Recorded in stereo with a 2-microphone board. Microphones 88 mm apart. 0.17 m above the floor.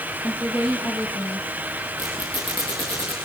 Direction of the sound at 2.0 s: 55° left (ahead or behind).